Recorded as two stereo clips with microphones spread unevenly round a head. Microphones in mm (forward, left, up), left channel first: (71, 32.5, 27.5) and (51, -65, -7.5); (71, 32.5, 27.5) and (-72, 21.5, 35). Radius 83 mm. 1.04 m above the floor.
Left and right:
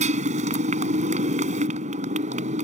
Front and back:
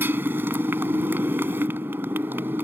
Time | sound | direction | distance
0.0 | a motorcycle | 100° right | ?